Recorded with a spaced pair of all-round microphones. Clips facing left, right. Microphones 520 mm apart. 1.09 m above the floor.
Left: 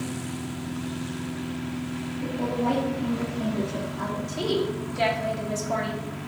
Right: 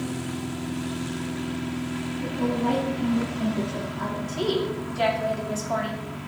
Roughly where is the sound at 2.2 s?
Right.